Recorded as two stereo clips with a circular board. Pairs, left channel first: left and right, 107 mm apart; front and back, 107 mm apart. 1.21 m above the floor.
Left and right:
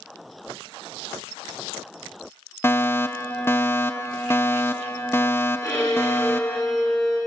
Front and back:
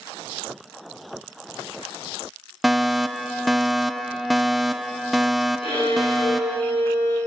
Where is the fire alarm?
95° left, 1.0 m.